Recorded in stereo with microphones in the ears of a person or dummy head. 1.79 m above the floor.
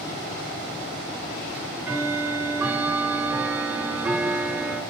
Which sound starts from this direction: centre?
Ticking, at 1.5 s.